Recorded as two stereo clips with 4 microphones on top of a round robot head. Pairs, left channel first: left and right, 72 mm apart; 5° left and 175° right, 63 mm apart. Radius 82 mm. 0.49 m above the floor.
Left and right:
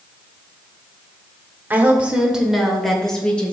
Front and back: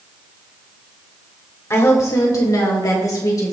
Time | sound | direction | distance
1.7 | a woman speaking | 30° right | 2.5 m